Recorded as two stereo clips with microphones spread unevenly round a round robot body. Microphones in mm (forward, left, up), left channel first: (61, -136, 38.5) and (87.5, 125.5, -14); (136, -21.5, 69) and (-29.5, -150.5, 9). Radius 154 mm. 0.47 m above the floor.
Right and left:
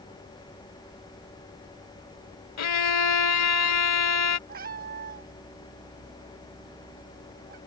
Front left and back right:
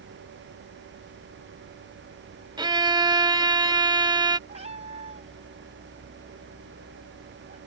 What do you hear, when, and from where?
2.6 s a violin: 70° right
4.5 s a cat meowing: 150° left